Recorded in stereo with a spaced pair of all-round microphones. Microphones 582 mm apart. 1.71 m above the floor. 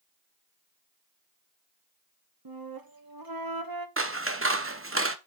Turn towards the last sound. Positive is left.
turn(degrees=-20)  # may be behind; listen again after turning